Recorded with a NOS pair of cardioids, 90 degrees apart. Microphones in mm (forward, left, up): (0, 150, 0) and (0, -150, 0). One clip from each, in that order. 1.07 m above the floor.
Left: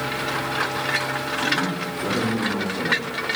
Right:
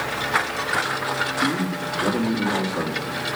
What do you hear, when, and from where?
1.4 s a man speaking: 60° right, 2 m